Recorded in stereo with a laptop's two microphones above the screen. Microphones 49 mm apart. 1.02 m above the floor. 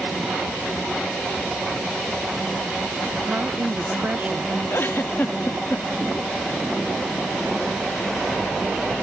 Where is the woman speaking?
45° right (ahead or behind); by 4.6 s 15° right (ahead or behind).